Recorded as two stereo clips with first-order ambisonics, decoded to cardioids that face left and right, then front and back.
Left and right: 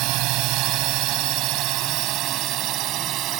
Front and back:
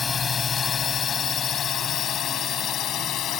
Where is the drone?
65° right; by 3.4 s 45° right.